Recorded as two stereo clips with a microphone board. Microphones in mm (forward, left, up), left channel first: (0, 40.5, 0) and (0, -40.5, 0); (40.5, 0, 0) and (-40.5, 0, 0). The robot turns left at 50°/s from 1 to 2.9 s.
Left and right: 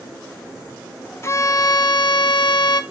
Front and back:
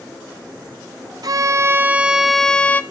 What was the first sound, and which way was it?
A violin, 145° left.